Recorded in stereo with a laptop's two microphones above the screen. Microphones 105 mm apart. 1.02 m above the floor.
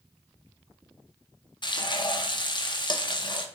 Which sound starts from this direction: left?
Frying, at 1.6 s.